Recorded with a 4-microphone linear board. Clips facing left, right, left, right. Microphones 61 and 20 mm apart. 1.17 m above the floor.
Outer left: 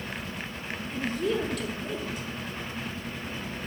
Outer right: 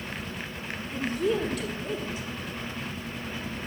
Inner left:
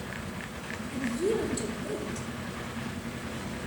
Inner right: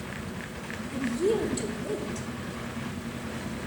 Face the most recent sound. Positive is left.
turn(degrees=0)  # may be behind; listen again after turning